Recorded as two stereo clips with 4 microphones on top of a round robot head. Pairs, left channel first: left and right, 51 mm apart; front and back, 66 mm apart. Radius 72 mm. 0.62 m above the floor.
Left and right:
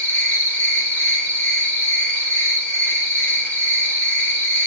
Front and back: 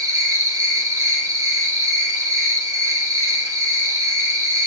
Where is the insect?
155° left, 3.5 m.